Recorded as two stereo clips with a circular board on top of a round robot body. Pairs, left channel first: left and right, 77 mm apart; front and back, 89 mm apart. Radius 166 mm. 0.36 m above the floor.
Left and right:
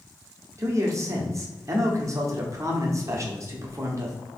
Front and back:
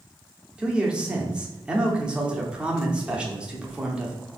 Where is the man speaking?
105° right, 1.3 m.